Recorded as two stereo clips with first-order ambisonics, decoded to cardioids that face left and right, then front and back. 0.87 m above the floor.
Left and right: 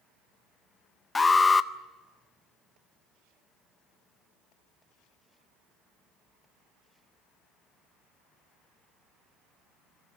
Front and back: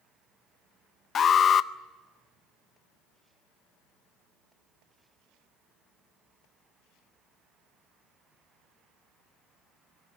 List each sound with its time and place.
1.1 s an alarm: 20° left, 0.5 m